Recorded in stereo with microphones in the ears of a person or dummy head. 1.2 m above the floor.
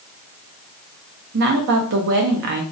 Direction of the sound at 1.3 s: 60° right (ahead or behind).